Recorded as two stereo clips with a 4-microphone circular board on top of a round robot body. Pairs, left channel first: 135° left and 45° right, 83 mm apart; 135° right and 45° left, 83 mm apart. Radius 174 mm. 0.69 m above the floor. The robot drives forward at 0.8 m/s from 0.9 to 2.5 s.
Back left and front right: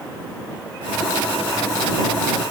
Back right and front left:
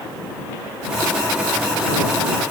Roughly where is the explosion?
I don't hear an explosion.